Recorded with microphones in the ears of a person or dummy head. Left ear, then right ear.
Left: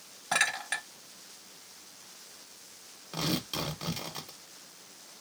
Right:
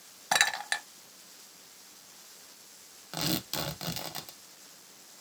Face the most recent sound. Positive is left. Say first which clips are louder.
# even
turn(degrees=-15)  # may be behind; listen again after turning